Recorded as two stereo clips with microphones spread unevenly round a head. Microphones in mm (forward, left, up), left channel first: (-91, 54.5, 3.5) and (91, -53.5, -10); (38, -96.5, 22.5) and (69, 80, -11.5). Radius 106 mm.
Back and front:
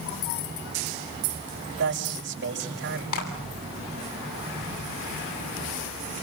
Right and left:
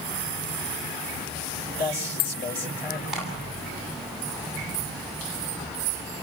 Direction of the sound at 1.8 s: 70° right.